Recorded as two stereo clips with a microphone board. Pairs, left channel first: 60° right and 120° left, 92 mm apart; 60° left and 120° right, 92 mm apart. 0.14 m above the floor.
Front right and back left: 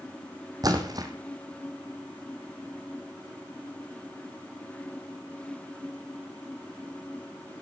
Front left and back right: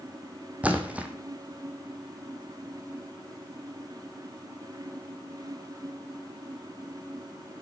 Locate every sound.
0.6 s a splash: 165° left, 1.6 m